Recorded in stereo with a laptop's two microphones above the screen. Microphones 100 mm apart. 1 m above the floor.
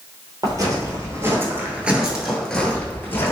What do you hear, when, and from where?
0.4 s footsteps: 40° right (ahead or behind), 1.4 m; by 3.3 s 25° left (ahead or behind), 1.2 m